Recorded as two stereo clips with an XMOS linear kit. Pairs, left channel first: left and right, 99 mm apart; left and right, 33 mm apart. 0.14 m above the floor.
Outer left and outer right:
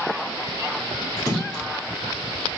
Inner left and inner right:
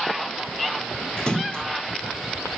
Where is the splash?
30° left (ahead or behind), 0.9 m.